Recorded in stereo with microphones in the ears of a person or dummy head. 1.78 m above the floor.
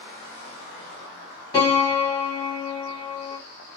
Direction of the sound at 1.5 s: 20° left (ahead or behind).